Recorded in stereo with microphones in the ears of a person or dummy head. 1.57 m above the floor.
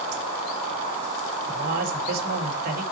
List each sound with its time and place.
1.5 s a man speaking: 50° right (ahead or behind), 2.5 m